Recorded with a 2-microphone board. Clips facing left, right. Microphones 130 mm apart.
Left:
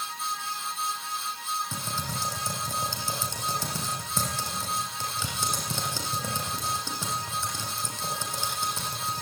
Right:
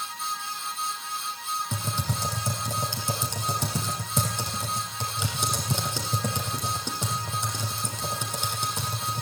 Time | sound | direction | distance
1.7 | typing on a keyboard | 20° right (ahead or behind) | 7 m